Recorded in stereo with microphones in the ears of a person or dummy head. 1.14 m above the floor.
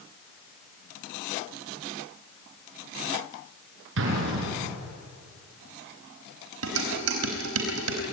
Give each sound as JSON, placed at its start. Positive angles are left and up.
{"t": 4.0, "sound": "an explosion", "side_deg": -70, "distance_m": 6.0}
{"t": 6.6, "sound": "dishes clattering", "side_deg": -85, "distance_m": 4.5}